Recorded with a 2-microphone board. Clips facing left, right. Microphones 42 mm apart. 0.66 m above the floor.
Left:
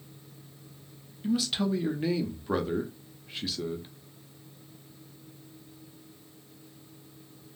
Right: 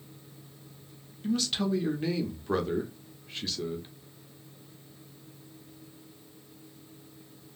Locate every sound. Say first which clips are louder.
1.2 s a man speaking: left 1 dB; 5° left (ahead or behind), 0.6 m